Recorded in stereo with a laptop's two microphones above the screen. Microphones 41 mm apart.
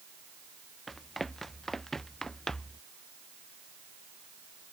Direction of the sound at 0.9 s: 5° left (ahead or behind).